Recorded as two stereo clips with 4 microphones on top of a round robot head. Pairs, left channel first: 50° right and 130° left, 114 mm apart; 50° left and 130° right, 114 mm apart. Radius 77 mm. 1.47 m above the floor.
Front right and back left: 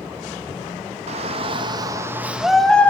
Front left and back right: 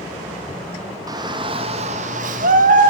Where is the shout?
165° left, 2.5 m; by 2.9 s 125° right, 2 m.